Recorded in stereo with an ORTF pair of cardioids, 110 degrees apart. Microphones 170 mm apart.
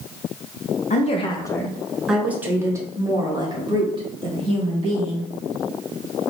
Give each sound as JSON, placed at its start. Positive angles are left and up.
{"t": 0.9, "sound": "a woman speaking", "azimuth_deg": 45, "distance_m": 0.6}